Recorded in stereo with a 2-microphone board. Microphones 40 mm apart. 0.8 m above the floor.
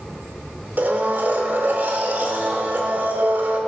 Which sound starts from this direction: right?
A blender, at 0.8 s.